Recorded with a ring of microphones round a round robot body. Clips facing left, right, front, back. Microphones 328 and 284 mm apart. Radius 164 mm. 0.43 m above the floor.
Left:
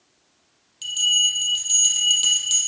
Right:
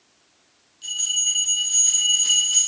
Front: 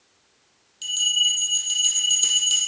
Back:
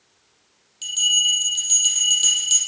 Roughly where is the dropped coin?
No dropped coin in this recording.